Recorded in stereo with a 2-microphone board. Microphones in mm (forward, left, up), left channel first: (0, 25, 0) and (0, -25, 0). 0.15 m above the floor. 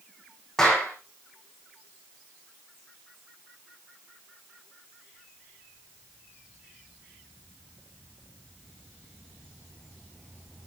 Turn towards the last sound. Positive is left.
turn(degrees=5)  # may be behind; listen again after turning